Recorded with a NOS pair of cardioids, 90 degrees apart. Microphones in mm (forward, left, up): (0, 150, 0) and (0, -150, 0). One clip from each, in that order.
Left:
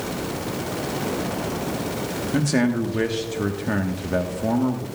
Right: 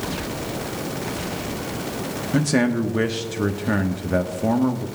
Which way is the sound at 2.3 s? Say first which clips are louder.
Right 2 dB; 10° right.